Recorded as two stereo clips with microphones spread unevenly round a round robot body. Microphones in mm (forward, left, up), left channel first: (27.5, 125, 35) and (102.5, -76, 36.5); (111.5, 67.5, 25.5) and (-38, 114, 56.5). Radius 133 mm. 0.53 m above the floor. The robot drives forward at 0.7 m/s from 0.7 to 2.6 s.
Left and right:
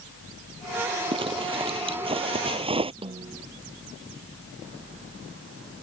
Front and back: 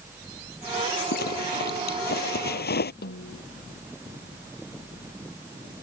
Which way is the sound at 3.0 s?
5° right.